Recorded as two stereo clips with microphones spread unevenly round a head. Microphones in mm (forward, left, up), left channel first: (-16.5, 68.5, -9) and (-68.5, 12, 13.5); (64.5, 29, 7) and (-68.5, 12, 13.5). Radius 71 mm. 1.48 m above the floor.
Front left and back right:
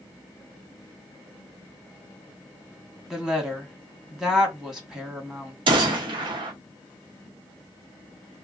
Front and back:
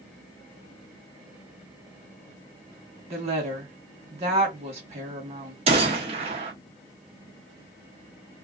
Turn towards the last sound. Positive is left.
turn(degrees=-125)